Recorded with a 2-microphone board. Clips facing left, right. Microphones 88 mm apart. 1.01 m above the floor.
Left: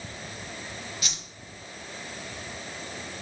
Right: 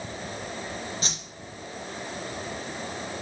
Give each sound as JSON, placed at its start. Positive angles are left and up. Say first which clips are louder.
{"t": 1.0, "sound": "a whoosh", "louder": "right 4 dB", "side_deg": -35, "distance_m": 1.0}